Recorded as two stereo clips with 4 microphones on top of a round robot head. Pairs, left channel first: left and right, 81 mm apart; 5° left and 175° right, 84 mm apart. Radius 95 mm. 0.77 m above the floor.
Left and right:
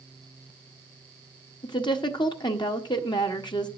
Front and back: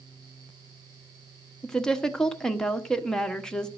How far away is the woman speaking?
About 1.2 m.